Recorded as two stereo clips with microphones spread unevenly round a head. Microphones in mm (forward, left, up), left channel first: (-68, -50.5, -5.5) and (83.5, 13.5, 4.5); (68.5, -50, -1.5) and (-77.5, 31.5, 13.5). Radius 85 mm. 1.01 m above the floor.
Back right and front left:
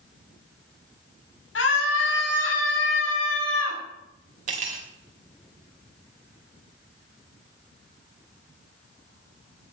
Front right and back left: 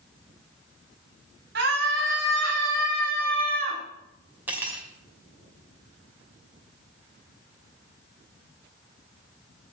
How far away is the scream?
About 5.5 m.